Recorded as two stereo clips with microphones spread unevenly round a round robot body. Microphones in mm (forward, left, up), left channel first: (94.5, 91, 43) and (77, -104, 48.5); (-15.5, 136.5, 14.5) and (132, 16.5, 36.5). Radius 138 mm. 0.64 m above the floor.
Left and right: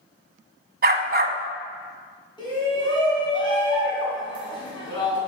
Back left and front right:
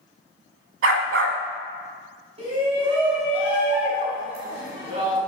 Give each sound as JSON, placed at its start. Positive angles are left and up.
{"t": 0.8, "sound": "a dog barking", "azimuth_deg": -60, "distance_m": 1.1}
{"t": 2.4, "sound": "a shout", "azimuth_deg": 20, "distance_m": 5.5}